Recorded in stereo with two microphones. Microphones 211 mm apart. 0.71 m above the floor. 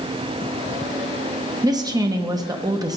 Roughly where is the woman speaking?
Centre.